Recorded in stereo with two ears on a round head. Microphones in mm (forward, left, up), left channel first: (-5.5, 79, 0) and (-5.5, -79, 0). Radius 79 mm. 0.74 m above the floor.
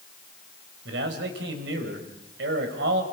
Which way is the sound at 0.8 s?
70° right (ahead or behind).